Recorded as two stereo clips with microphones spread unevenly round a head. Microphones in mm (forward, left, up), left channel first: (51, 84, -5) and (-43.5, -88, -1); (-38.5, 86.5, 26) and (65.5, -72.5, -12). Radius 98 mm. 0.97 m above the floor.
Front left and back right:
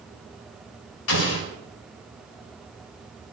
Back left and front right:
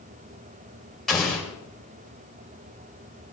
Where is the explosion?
35° left, 4 m.